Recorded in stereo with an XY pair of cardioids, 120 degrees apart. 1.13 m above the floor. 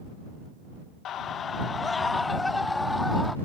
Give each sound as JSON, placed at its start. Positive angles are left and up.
{"t": 1.1, "sound": "a scream", "azimuth_deg": 65}